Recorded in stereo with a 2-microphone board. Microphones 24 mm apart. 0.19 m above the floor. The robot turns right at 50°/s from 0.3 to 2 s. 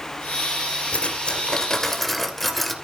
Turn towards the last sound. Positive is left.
turn(degrees=170)